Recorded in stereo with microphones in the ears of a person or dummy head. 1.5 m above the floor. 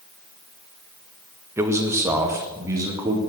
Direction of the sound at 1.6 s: 15° right (ahead or behind).